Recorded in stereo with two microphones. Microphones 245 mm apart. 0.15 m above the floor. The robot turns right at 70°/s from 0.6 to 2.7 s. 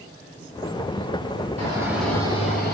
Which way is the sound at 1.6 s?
30° right.